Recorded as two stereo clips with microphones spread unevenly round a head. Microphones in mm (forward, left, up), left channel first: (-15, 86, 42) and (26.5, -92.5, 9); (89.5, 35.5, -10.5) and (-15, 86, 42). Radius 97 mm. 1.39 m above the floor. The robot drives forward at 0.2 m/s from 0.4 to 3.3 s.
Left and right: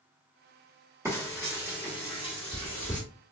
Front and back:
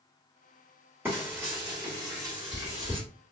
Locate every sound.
1.1 s frying: 160° right, 1.2 m; by 3.0 s 165° right, 1.5 m